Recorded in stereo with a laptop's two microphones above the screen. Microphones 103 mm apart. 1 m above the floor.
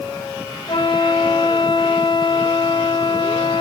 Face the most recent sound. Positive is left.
turn(degrees=50)  # may be behind; listen again after turning